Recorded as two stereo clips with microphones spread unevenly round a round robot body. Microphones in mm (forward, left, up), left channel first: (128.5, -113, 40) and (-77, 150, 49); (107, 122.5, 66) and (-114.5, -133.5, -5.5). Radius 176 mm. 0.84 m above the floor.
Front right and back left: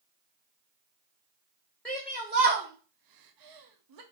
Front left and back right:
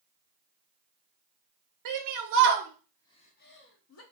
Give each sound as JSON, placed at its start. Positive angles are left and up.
{"t": 1.9, "sound": "a shout", "azimuth_deg": -135, "distance_m": 0.7}